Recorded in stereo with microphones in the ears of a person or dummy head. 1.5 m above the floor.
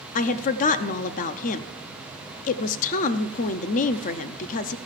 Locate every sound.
0.1 s a woman speaking: 40° left (ahead or behind), 0.6 m